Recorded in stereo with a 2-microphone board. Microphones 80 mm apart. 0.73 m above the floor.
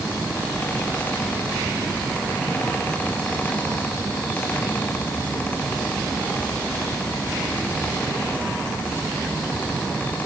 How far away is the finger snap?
No finger snap in this recording.